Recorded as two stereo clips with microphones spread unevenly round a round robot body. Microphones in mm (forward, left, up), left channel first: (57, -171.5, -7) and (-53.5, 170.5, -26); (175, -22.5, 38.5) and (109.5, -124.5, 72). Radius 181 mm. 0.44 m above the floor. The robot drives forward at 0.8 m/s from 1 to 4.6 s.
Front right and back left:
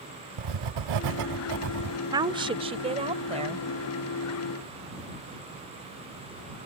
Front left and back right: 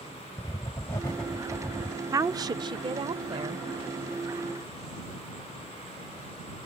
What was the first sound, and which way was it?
Writing, 130° left.